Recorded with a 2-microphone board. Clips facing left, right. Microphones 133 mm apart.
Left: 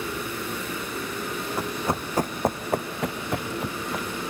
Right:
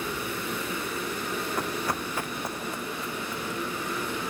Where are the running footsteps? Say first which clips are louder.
Left 5 dB; 5° left (ahead or behind), 0.7 m; by 4.2 s 90° left, 1.5 m.